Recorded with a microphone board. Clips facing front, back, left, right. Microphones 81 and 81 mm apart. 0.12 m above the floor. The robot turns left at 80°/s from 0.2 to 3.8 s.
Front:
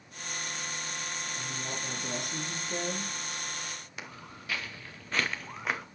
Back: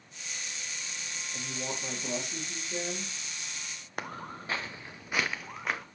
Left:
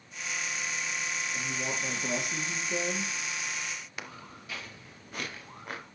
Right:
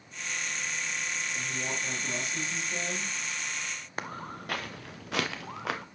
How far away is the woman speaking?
About 3 m.